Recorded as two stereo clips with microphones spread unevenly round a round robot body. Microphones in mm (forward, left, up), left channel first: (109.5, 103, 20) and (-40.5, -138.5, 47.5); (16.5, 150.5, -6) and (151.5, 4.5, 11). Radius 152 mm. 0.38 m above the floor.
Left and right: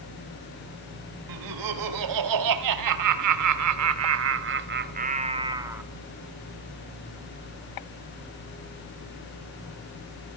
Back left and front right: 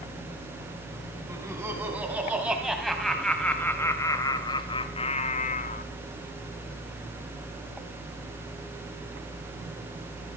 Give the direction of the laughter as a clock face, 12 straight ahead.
4 o'clock.